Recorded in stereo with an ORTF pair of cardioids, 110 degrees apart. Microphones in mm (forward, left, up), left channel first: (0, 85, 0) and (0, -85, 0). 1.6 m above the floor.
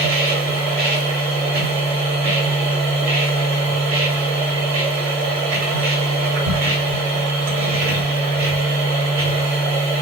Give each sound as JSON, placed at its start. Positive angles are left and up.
{"t": 0.0, "sound": "a machine running", "azimuth_deg": -60, "distance_m": 1.1}